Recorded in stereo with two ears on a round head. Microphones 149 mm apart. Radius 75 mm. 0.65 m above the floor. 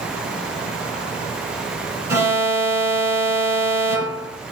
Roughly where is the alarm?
Centre.